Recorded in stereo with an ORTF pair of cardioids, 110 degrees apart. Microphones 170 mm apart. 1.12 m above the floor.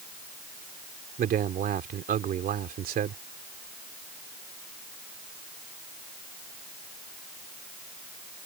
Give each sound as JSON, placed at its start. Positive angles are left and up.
{"t": 1.2, "sound": "a man speaking", "azimuth_deg": -55}